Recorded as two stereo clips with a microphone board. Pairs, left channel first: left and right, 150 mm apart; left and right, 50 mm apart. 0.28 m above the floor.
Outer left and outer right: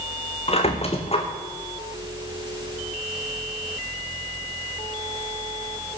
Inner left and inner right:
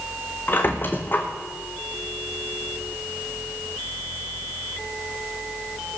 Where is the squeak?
40° left (ahead or behind), 1.7 m.